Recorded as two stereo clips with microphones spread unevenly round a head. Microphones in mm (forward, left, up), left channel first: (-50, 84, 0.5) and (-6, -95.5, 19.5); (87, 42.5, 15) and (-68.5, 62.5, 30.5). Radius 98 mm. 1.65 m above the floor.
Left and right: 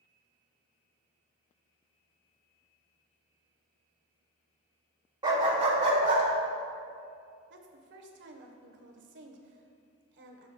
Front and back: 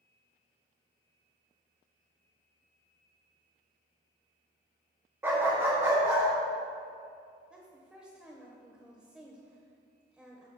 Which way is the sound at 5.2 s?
120° right.